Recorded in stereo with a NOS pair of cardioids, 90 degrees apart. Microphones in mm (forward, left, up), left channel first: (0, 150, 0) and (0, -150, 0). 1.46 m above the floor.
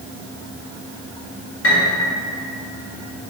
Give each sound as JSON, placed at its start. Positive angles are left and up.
{"t": 1.6, "sound": "a piano", "azimuth_deg": 45, "distance_m": 1.3}